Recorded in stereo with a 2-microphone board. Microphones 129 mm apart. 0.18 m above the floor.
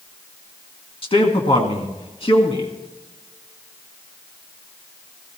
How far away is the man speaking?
About 2 m.